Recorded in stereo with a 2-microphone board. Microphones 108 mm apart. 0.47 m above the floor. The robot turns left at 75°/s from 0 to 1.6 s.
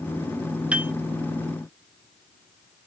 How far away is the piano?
About 0.5 m.